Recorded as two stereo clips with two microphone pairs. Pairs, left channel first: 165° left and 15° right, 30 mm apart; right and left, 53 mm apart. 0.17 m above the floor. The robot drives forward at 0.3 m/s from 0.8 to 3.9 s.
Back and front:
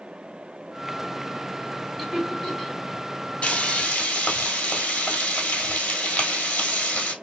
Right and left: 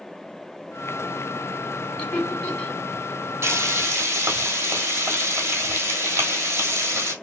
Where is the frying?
135° left, 1.1 m; by 7.1 s 140° left, 1.2 m.